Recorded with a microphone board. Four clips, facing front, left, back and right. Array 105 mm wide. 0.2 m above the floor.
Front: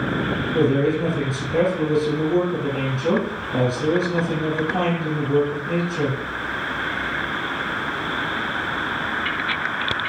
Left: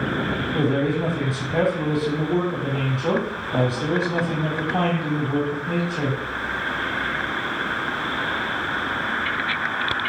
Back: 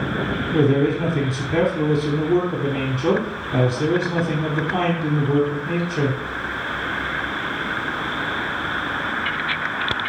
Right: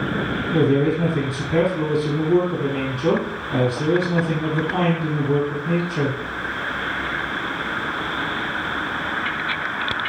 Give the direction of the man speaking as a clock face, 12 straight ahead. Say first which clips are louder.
Right 5 dB, back 1 dB; 4 o'clock.